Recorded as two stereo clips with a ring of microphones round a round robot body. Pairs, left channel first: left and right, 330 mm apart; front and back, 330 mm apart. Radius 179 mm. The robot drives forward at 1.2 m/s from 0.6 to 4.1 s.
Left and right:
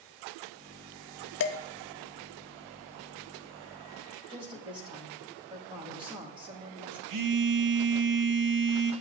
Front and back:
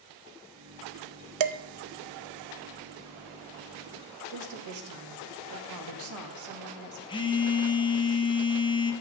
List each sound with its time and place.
1.4 s dishes clattering: 145° left, 0.5 m; by 1.6 s 155° left, 0.7 m
4.3 s a woman speaking: 165° right, 1.7 m
7.1 s a phone buzzing: 75° right, 1.2 m